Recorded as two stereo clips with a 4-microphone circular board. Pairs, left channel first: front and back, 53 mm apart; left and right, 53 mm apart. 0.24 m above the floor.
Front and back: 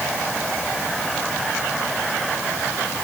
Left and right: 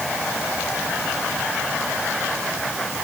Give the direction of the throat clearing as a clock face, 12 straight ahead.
No throat clearing in this recording.